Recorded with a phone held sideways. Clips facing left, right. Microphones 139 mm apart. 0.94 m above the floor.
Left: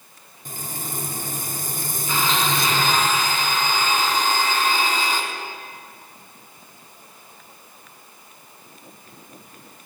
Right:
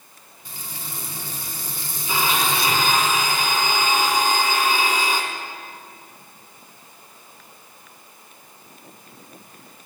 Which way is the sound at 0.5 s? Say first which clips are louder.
Left 5 dB; 45° left (ahead or behind).